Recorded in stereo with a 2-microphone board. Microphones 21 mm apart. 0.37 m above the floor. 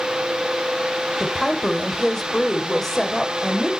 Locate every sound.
1.2 s a woman speaking: 15° left (ahead or behind), 1.3 m